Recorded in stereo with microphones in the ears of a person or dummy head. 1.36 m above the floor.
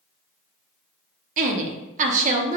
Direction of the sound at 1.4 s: 45° right (ahead or behind).